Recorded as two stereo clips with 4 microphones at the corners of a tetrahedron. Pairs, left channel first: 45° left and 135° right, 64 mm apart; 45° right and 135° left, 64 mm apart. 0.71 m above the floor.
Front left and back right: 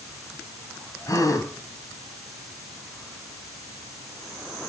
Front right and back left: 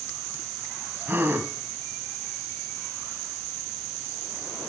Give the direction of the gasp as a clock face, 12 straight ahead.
9 o'clock.